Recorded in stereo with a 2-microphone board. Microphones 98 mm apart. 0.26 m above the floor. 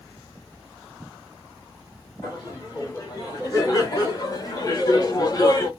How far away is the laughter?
About 2 m.